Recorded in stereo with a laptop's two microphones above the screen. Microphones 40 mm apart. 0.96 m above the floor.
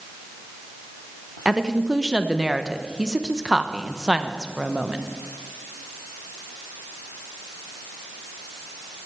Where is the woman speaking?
15° right (ahead or behind), 0.8 m.